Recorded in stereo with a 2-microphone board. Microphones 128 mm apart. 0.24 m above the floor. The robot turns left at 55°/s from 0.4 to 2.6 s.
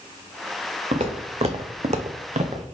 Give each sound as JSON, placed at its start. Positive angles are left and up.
{"t": 0.9, "sound": "footsteps", "side_deg": -60, "distance_m": 1.1}